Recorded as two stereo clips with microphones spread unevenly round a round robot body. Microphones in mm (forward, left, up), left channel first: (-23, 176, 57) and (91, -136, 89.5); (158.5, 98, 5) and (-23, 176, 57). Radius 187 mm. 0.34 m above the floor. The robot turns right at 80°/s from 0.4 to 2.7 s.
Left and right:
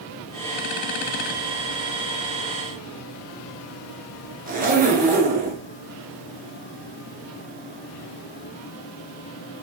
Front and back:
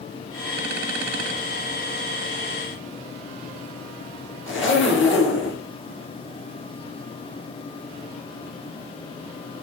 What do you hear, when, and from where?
4.5 s a zipper: straight ahead, 3.5 m